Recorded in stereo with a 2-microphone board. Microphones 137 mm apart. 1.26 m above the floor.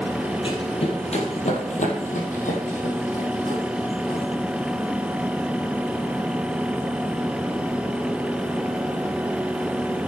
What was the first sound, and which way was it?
Running footsteps, 40° left (ahead or behind).